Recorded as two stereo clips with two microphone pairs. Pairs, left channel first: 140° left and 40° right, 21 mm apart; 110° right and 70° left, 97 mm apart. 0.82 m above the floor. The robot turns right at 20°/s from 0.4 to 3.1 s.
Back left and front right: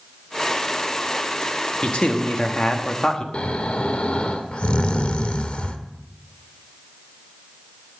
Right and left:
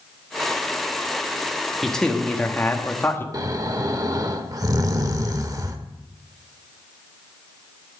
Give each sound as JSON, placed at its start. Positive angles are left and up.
{"t": 1.8, "sound": "a man speaking", "azimuth_deg": 160, "distance_m": 1.2}
{"t": 3.3, "sound": "snoring", "azimuth_deg": 110, "distance_m": 0.8}